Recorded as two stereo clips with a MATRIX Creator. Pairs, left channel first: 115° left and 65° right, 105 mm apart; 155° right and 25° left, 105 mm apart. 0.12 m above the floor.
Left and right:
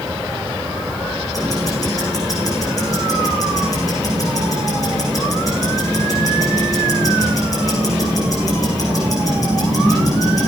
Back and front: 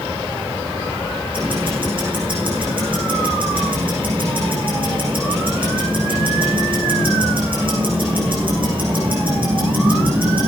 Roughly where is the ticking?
Ahead left.